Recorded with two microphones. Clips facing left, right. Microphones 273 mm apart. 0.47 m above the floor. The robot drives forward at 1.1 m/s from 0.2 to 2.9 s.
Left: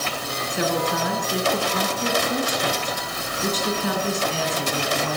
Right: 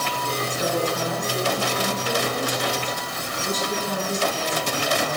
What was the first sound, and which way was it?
A woman speaking, 65° left (ahead or behind).